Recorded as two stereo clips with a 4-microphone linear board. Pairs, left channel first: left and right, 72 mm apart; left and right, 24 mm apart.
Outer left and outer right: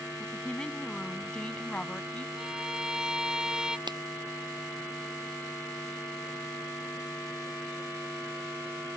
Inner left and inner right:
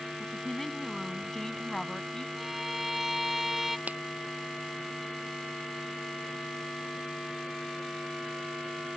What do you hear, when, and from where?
0.2 s a woman speaking: 15° left (ahead or behind); by 2.3 s 20° left (ahead or behind)
2.4 s a violin: 10° right (ahead or behind)
3.9 s a finger snap: 85° right